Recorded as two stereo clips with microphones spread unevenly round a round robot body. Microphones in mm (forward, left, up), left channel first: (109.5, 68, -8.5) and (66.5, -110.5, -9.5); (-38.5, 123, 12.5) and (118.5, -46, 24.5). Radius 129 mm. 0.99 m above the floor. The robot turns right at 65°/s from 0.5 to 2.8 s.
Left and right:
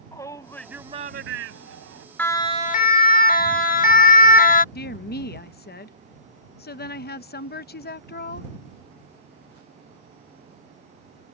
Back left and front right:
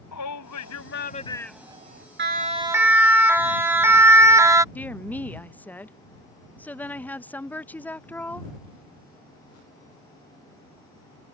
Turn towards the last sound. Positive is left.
turn(degrees=50)